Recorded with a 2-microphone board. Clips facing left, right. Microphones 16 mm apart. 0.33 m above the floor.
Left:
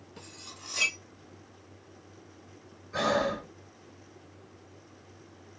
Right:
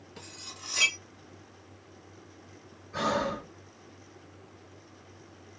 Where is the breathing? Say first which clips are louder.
Left 2 dB; 30° left (ahead or behind), 1.7 m.